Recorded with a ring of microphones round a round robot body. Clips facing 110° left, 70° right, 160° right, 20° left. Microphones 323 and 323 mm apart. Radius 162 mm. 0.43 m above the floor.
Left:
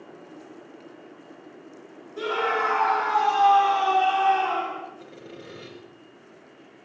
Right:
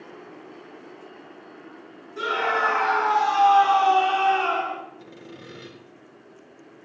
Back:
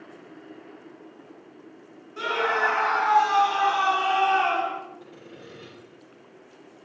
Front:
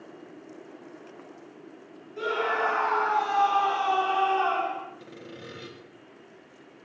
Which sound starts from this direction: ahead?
Sawing, at 5.0 s.